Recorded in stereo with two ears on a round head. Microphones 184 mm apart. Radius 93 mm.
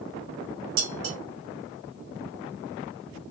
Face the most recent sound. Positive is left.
turn(degrees=-65)  # may be behind; listen again after turning